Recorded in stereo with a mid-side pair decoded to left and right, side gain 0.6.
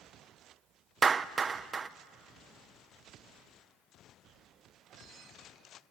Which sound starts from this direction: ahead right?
A clap, at 1.0 s.